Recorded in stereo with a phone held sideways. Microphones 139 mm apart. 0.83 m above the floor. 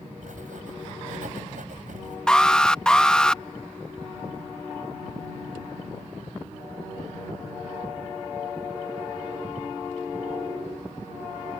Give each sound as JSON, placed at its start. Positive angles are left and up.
{"t": 0.2, "sound": "writing", "side_deg": -75}
{"t": 2.3, "sound": "an alarm", "side_deg": 5}